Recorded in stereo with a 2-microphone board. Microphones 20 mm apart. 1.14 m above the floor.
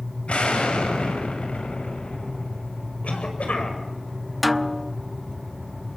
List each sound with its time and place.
0.3 s an explosion: 80° left, 6.5 m
3.0 s a cough: 85° left, 7 m
4.4 s a snare drum: 5° left (ahead or behind), 0.8 m